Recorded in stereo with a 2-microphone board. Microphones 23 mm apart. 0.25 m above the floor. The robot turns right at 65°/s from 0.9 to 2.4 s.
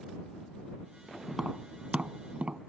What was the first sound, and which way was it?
Tapping, 10° right (ahead or behind).